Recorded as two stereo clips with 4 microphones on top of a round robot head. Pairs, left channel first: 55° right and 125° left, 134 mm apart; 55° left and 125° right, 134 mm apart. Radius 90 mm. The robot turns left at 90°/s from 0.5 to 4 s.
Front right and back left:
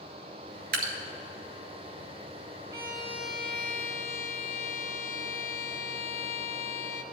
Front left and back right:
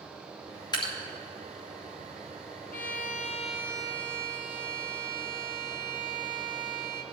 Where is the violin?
60° left, 1.0 m; by 7.0 s 55° right, 1.0 m.